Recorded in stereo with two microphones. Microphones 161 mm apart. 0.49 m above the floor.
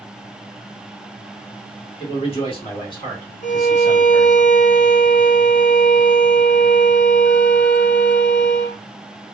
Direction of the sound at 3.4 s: 50° left (ahead or behind).